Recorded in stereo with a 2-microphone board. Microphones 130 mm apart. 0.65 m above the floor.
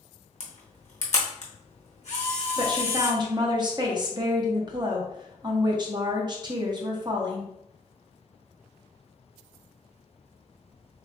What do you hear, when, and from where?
0.4 s a camera shutter: 65° left (ahead or behind), 0.8 m
2.6 s a woman speaking: 35° right (ahead or behind), 0.7 m